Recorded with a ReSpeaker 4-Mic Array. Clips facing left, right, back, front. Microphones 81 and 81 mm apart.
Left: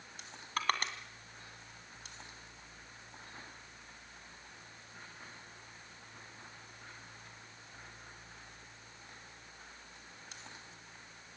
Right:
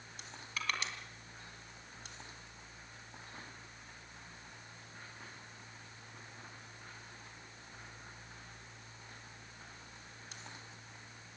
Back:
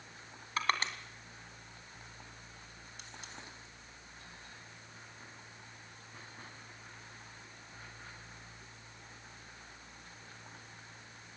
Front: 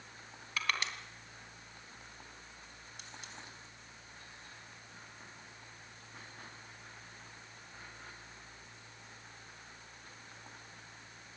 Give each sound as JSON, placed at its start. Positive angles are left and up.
{"t": 0.6, "sound": "crushing", "azimuth_deg": 125, "distance_m": 2.5}